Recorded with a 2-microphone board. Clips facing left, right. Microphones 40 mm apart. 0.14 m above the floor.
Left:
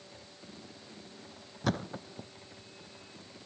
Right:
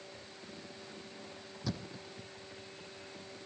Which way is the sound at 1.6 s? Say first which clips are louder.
Left 8 dB; 55° left (ahead or behind).